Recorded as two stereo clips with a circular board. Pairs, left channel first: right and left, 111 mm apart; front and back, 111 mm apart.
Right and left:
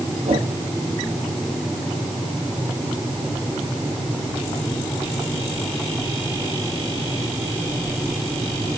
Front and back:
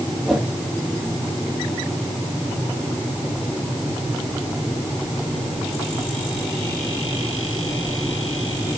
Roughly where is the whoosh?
Left.